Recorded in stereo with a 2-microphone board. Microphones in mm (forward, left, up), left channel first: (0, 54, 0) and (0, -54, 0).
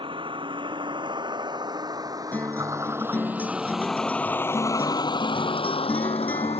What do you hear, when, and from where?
0.0 s a vehicle: 50° right (ahead or behind); by 6.6 s 75° left (ahead or behind)
2.3 s a guitar: 15° left (ahead or behind)